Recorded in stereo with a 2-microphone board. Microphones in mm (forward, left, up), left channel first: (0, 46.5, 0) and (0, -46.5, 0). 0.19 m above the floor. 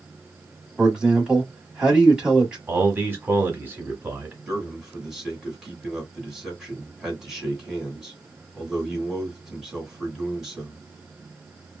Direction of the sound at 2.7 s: 25° right (ahead or behind).